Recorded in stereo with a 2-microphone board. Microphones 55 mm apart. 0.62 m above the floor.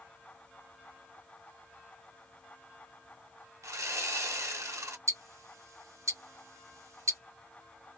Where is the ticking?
75° right (ahead or behind), 0.9 m.